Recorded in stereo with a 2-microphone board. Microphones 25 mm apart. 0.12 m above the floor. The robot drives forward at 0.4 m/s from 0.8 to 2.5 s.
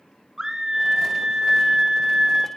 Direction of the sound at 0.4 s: 25° right (ahead or behind).